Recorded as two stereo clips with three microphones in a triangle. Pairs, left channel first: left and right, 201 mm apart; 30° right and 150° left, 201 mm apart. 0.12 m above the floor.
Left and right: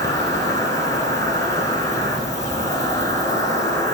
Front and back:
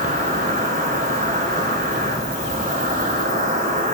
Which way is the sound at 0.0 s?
155° left.